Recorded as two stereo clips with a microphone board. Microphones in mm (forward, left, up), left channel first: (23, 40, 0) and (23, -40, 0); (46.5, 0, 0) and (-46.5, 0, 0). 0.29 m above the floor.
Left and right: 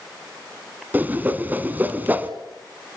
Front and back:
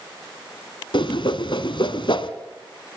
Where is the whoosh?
25° right, 1.4 m.